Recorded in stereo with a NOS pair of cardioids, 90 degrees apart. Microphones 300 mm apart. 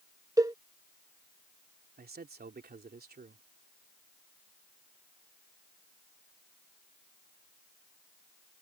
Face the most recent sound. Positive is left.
turn(degrees=-30)